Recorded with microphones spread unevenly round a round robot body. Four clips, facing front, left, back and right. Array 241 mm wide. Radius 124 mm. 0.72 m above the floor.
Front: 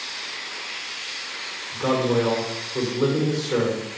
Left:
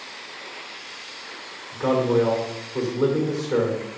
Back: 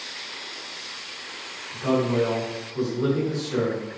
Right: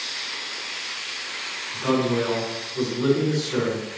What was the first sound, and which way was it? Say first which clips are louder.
A man speaking: left 2 dB, front 1 dB; 40° left.